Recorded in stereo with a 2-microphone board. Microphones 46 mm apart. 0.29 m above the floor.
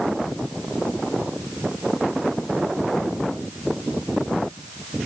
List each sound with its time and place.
Only background noise.